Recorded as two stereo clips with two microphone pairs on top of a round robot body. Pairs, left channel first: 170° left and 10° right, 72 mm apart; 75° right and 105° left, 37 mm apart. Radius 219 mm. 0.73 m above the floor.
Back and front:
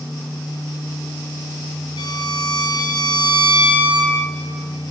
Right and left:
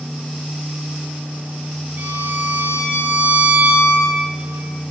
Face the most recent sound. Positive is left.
turn(degrees=150)